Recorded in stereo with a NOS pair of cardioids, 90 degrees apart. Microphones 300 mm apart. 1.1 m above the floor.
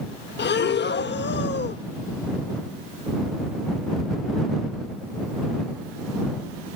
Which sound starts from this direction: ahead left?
Breathing, at 0.4 s.